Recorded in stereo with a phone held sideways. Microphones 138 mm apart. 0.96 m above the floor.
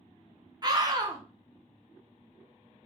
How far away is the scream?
About 0.7 m.